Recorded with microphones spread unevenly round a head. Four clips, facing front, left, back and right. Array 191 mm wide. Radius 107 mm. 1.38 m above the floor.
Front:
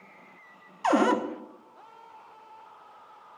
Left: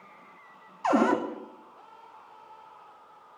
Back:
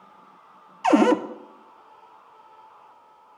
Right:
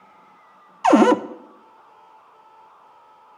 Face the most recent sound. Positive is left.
turn(degrees=-115)